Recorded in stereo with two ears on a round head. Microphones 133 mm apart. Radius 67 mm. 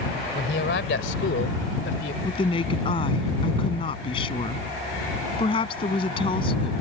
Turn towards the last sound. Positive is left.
turn(degrees=35)  # may be behind; listen again after turning